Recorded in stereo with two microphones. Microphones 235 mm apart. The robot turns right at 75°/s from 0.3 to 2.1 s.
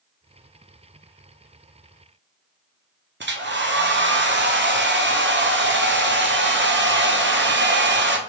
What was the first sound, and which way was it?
A hair dryer, 50° right (ahead or behind).